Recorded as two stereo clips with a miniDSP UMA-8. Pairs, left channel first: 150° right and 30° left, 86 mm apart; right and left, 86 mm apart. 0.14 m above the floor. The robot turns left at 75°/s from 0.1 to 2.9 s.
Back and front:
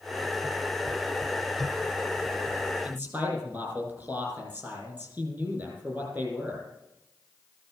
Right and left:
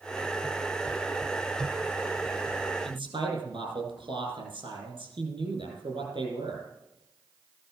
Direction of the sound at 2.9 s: 100° left.